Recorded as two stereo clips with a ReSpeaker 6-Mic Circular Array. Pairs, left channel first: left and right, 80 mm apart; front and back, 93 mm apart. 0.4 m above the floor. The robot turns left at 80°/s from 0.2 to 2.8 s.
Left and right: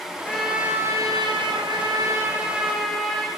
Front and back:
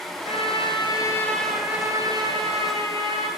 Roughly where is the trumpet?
Ahead.